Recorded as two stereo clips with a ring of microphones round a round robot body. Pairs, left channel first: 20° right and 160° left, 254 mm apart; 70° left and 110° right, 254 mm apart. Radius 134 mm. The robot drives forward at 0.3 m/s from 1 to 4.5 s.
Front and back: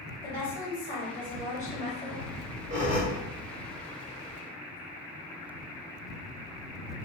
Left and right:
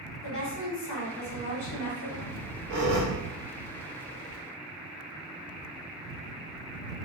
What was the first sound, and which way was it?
A woman speaking, 35° left.